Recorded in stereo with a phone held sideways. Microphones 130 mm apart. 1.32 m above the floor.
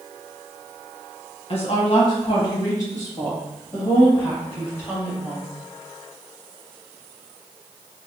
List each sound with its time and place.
1.5 s a woman speaking: 50° left (ahead or behind), 1.1 m; by 5.4 s 15° left (ahead or behind), 4 m